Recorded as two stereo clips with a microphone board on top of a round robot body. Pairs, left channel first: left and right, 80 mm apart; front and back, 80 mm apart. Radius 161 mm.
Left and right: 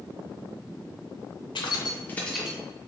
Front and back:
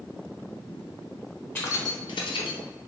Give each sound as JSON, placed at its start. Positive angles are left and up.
{"t": 1.6, "sound": "keys jangling", "azimuth_deg": 65, "distance_m": 0.7}